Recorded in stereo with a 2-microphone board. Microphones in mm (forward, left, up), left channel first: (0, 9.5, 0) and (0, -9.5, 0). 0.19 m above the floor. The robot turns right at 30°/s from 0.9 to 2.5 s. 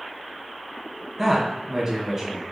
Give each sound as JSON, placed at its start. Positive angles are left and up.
{"t": 1.2, "sound": "a man speaking", "side_deg": -15, "distance_m": 1.1}